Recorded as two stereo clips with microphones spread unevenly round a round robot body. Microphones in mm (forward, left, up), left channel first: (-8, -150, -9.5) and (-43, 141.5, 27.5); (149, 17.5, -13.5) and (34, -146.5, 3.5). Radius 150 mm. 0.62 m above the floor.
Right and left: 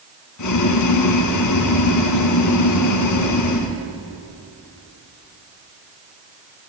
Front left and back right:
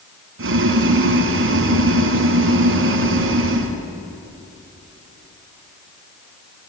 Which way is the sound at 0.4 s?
115° right.